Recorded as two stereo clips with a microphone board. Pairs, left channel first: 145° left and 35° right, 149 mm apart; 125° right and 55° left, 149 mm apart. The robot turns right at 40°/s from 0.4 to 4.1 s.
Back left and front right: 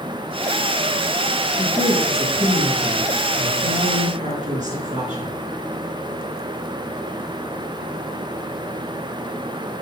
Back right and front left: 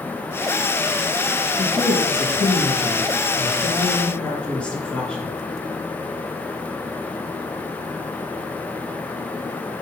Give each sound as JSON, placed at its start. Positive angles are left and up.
{"t": 1.6, "sound": "a woman speaking", "azimuth_deg": -145, "distance_m": 2.5}